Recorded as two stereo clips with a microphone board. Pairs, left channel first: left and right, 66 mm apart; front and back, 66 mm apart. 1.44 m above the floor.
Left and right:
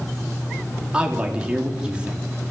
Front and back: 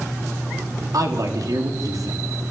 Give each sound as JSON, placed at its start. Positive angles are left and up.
{"t": 0.9, "sound": "a man speaking", "azimuth_deg": -160, "distance_m": 4.0}